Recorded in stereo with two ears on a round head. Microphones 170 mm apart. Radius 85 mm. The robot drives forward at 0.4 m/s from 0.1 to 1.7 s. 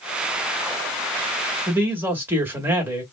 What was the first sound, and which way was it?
A man speaking, 10° right (ahead or behind).